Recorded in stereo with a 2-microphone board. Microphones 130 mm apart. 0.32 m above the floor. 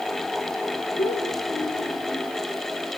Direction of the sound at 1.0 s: 60° left (ahead or behind).